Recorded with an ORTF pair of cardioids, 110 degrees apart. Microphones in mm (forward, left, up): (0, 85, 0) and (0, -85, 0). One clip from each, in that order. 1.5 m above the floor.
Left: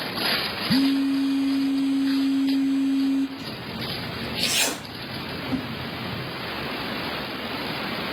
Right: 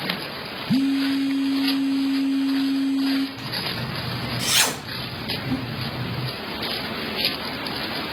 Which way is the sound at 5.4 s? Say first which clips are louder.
Right 1 dB; 10° right.